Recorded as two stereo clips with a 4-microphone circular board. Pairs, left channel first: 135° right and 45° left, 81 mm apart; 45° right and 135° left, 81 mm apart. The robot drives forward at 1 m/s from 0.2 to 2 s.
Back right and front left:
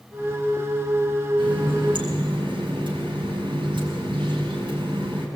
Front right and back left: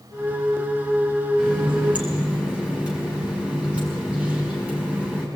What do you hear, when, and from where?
1.4 s a running tap: 55° left, 5.5 m; by 5.3 s 60° left, 5 m